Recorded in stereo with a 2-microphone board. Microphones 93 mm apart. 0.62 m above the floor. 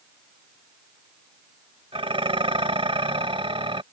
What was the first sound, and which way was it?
Dishes clattering, 75° right (ahead or behind).